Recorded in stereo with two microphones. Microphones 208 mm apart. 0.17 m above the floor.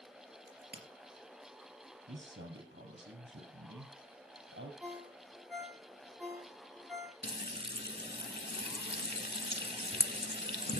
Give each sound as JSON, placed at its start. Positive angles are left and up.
{"t": 0.5, "sound": "a crack", "side_deg": -50, "distance_m": 3.5}
{"t": 2.1, "sound": "a man speaking", "side_deg": -65, "distance_m": 3.5}
{"t": 4.8, "sound": "a ringtone", "side_deg": -10, "distance_m": 7.0}
{"t": 7.2, "sound": "frying", "side_deg": 55, "distance_m": 0.8}